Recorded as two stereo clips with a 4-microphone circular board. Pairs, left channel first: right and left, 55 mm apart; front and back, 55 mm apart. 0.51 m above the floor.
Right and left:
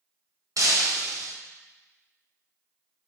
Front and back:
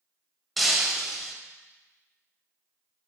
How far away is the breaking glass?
About 0.8 m.